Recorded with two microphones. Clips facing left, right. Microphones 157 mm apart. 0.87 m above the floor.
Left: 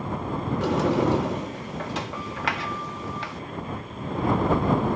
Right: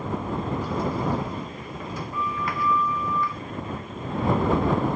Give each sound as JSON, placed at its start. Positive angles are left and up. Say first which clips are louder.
{"t": 0.6, "sound": "a sliding door", "louder": "left 9 dB", "side_deg": 85}